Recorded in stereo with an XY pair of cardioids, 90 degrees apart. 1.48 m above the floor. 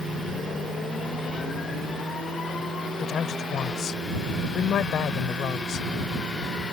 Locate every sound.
3.0 s a woman speaking: 70° left